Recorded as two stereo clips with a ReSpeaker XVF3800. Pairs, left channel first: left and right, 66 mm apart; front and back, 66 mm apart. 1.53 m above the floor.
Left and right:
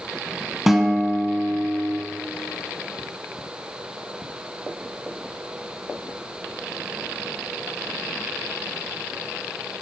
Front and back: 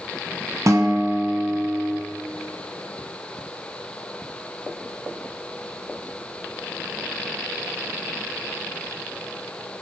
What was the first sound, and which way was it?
A guitar, 175° right.